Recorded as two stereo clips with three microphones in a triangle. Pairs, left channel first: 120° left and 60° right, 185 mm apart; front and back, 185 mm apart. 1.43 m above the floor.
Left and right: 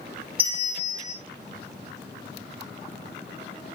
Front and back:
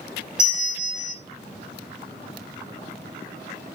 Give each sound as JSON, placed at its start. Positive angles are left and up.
{"t": 0.4, "sound": "a bell", "azimuth_deg": -95, "distance_m": 1.9}